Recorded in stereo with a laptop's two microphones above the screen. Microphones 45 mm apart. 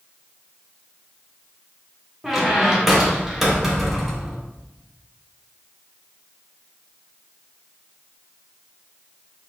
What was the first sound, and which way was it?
A squeak, 5° right (ahead or behind).